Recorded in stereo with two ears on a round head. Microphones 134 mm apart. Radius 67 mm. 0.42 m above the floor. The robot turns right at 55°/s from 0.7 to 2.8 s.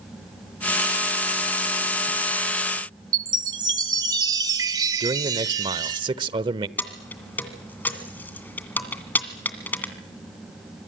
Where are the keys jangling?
10° left (ahead or behind), 2 m.